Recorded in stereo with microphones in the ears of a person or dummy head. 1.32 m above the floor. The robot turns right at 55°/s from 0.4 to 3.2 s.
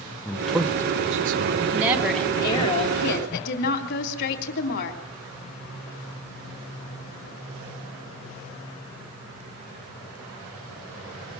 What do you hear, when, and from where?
0.2 s a man speaking: 5° left (ahead or behind), 0.9 m; by 1.6 s 60° right (ahead or behind), 0.9 m
1.7 s a woman speaking: 20° right, 3 m; by 5.0 s 65° left, 3 m